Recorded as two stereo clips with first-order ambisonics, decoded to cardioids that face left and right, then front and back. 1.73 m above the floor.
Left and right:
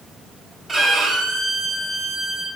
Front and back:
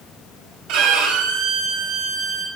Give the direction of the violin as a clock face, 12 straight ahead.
6 o'clock.